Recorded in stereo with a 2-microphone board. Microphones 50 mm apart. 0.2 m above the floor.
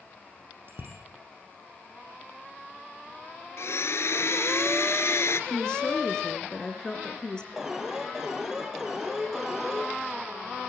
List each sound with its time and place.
0.7 s a bicycle bell: 50° right (ahead or behind), 5 m
3.6 s a blender: 60° left (ahead or behind), 2.0 m
5.5 s a woman speaking: 15° left (ahead or behind), 3.5 m
7.6 s an alarm: 10° right (ahead or behind), 3 m